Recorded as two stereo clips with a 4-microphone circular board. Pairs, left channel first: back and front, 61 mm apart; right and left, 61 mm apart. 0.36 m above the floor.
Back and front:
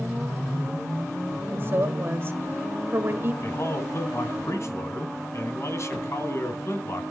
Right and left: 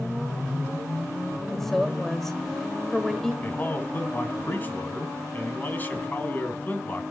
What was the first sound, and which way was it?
A woman speaking, 10° right.